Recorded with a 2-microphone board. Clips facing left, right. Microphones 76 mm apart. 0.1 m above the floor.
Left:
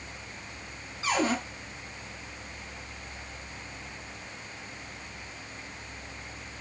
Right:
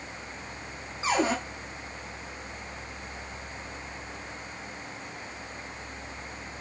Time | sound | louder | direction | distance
1.0 | a cupboard door | right 1 dB | 25° right (ahead or behind) | 3 m